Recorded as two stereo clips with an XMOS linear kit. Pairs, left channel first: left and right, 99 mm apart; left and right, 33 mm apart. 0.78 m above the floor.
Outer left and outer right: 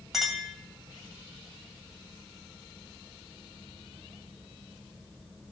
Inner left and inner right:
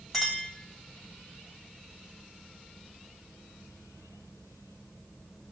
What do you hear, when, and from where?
0.1 s a clink: centre (ahead or behind), 3 m